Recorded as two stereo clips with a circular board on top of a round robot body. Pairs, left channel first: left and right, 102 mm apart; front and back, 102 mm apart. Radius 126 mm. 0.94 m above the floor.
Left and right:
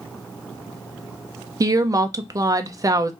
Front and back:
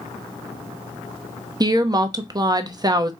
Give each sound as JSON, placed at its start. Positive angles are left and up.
{"t": 1.6, "sound": "a woman speaking", "azimuth_deg": -140, "distance_m": 0.8}